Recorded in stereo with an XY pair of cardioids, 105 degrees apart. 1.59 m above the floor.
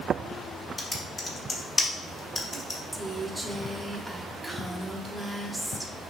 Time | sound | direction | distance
0.8 | typing on a keyboard | 25° left | 0.9 m
2.9 | a woman speaking | straight ahead | 0.8 m